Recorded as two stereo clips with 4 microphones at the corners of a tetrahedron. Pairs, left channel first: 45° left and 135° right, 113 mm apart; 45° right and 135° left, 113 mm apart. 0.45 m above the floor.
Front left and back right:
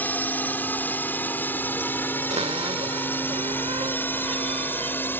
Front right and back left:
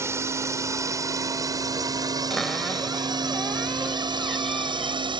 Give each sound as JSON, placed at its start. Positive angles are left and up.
{"t": 0.0, "sound": "a drone", "azimuth_deg": 100}
{"t": 2.3, "sound": "a cupboard door", "azimuth_deg": -135}